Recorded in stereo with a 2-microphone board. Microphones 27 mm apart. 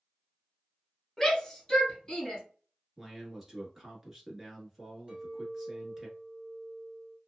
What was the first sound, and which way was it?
A shout, 5° left (ahead or behind).